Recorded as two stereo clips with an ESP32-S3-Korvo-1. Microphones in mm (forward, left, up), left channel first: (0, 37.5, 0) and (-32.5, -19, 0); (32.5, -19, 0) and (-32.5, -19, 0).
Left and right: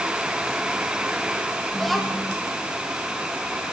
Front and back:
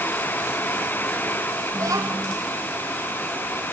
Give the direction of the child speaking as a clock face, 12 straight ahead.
7 o'clock.